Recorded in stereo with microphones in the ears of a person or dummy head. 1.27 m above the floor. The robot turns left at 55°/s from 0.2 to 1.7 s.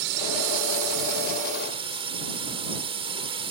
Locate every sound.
0.0 s a drone: 65° right; by 3.5 s 150° right